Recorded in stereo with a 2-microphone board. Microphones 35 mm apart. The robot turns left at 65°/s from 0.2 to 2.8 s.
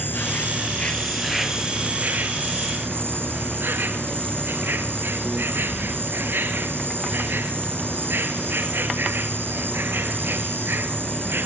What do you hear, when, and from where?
0.0 s an insect: 75° left, 2.5 m; by 11.5 s 95° right, 2.5 m